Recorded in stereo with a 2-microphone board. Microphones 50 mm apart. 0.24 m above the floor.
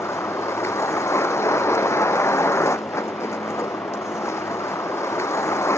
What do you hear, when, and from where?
0.0 s a vehicle: 70° left (ahead or behind)